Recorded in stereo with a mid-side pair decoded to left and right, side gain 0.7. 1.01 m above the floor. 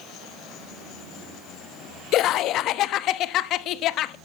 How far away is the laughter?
About 1.1 m.